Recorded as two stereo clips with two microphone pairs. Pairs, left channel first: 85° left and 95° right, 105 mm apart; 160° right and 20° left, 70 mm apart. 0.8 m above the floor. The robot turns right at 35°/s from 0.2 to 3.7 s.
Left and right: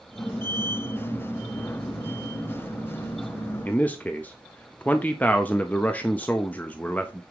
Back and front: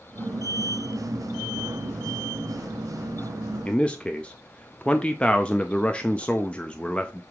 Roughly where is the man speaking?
Behind left.